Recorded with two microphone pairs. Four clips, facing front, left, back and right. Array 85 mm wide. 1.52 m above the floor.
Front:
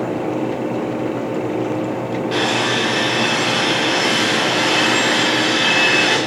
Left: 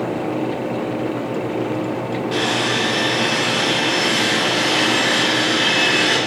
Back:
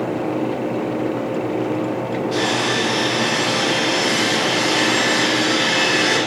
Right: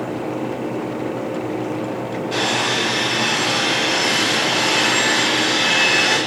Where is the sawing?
10° left, 6.5 m.